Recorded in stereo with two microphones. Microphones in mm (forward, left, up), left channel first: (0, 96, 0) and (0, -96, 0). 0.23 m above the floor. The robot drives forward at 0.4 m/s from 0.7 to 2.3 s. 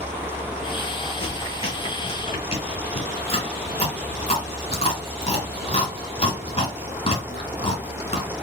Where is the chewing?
30° left (ahead or behind), 1.7 m.